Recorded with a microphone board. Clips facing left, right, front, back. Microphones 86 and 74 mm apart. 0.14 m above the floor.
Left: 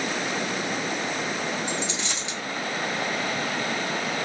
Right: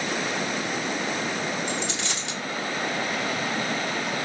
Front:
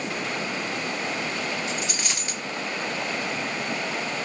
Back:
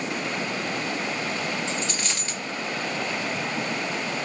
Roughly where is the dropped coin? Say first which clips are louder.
Even, back 1 dB; right.